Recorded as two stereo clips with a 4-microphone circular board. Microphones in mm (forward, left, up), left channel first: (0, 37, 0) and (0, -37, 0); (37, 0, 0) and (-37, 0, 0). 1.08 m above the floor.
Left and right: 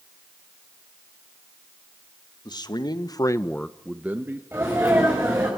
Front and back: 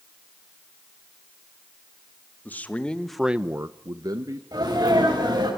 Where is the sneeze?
150° right, 5.5 m.